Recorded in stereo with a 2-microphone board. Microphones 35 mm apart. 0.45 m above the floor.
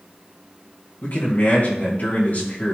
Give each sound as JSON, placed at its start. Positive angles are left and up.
{"t": 1.0, "sound": "a man speaking", "side_deg": 55, "distance_m": 2.5}